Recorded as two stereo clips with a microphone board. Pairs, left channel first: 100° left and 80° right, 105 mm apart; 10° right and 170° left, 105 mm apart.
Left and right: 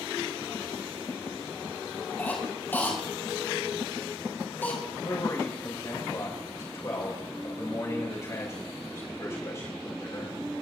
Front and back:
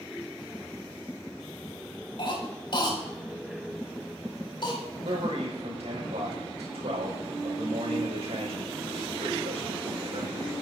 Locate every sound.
2.2 s a cough: 30° left, 5 m
5.0 s a man speaking: 150° left, 4.5 m